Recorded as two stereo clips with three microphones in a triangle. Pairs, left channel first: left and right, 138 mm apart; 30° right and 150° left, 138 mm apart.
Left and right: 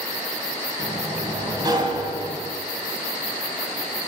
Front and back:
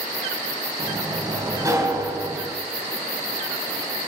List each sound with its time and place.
0.8 s a sliding door: 145° right, 2.5 m